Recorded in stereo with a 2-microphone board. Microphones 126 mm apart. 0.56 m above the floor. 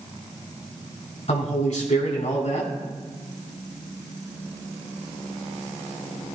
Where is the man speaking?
60° left (ahead or behind), 4 m.